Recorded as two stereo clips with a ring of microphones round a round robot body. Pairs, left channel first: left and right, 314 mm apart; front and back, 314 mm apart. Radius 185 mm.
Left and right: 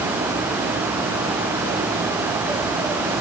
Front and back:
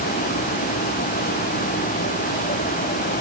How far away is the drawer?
No drawer in this recording.